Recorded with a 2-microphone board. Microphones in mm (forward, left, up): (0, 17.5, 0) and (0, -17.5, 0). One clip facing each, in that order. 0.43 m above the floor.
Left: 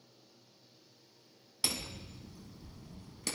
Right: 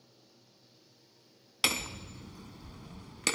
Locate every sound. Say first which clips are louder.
1.6 s hammering: right 7 dB; 85° right, 0.9 m